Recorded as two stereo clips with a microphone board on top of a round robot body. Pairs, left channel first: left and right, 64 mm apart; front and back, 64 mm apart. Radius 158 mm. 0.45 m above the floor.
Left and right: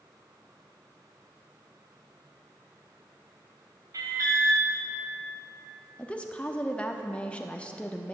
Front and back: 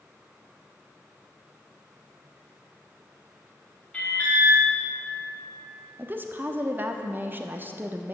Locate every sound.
3.9 s an alarm: 65° right, 4 m
6.0 s a woman speaking: 150° left, 1.2 m